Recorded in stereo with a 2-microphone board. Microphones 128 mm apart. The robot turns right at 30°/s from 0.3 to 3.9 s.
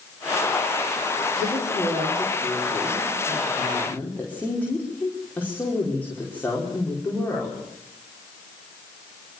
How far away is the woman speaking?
About 5 m.